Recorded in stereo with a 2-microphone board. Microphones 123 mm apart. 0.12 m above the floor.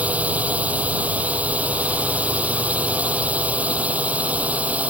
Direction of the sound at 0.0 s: 10° right (ahead or behind).